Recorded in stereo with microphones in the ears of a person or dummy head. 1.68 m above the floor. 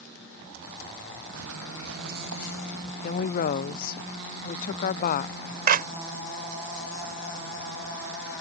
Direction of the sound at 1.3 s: 80° right.